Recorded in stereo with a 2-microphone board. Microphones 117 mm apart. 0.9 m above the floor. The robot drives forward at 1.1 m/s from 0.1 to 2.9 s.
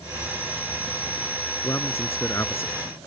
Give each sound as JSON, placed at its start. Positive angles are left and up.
{"t": 1.6, "sound": "a man speaking", "side_deg": 25}